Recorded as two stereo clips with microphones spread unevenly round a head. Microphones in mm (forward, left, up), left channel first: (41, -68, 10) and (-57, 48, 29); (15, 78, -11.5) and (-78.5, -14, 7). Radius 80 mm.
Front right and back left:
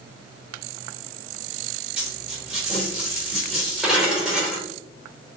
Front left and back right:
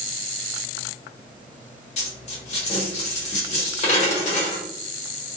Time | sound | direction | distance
2.0 | a dropped coin | 50° left | 1.1 m